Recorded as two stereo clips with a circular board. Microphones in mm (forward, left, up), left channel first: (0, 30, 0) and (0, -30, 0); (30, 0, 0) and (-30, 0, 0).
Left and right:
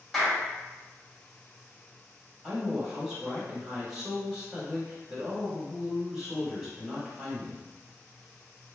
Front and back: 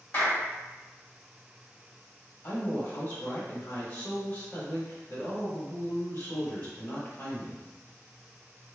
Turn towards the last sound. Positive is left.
turn(degrees=-10)